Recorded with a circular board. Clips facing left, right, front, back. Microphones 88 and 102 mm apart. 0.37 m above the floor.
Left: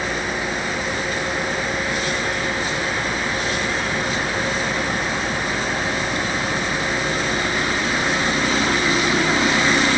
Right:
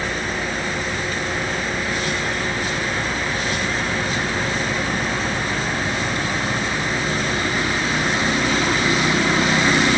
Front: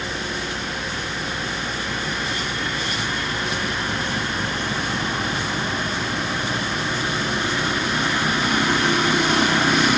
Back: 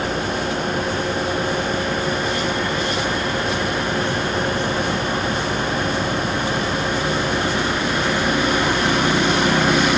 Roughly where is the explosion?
I don't hear an explosion.